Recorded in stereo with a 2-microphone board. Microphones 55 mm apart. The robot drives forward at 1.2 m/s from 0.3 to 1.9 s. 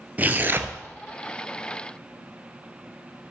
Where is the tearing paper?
30° right (ahead or behind), 0.8 m; by 0.8 s 45° right (ahead or behind), 0.6 m.